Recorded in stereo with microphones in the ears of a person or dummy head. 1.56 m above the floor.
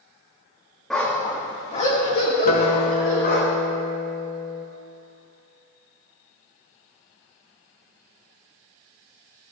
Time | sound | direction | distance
0.9 | a dog barking | centre (ahead or behind) | 1.1 m
2.5 | a guitar | 40° left (ahead or behind) | 1.5 m